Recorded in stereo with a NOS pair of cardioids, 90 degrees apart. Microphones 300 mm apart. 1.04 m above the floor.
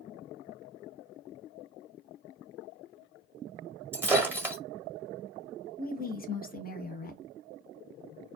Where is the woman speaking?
30° left, 0.9 m.